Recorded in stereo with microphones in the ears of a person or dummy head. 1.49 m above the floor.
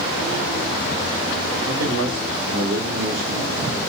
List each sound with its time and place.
1.6 s a man speaking: 75° right (ahead or behind), 1.9 m; by 3.8 s 80° right, 3 m